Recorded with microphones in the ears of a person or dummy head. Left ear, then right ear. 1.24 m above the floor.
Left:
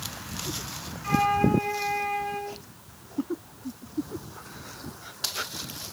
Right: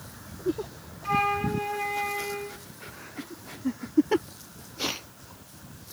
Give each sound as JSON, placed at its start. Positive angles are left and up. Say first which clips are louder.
{"t": 1.0, "sound": "a flute", "louder": "left 2 dB", "side_deg": 40, "distance_m": 4.5}